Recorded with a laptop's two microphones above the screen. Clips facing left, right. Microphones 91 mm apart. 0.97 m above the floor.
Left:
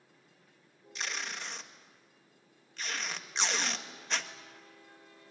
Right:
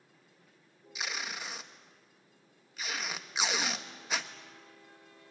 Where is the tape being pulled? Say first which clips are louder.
Even; 5° right (ahead or behind), 1.3 m.